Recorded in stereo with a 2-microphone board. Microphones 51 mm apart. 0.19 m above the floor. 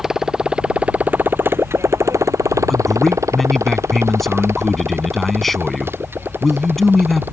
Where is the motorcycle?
10° right (ahead or behind); by 7.3 s 45° right (ahead or behind).